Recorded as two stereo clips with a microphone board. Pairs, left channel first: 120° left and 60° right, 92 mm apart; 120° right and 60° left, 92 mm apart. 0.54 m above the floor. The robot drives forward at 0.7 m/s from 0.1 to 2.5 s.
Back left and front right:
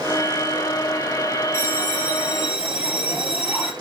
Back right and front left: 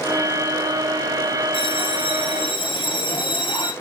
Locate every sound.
1.5 s a bell: 125° right, 1.7 m; by 3.7 s 140° right, 2 m